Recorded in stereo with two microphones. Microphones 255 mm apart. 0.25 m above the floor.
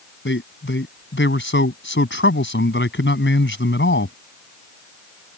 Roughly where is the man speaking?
Left.